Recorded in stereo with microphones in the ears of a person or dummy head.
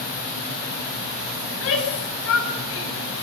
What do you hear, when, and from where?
1.5 s a shout: 85° left, 9.5 m